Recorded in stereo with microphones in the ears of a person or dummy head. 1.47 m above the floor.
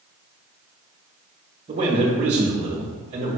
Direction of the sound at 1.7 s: 35° right (ahead or behind).